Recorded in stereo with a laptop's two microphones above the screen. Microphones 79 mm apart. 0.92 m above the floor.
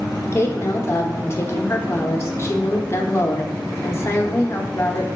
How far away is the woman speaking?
About 0.7 m.